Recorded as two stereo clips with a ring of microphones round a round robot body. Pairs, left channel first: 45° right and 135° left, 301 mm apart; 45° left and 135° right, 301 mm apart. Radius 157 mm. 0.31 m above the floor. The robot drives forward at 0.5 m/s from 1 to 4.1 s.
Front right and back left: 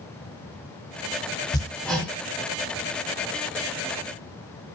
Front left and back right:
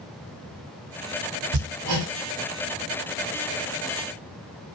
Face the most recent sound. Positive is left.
turn(degrees=-160)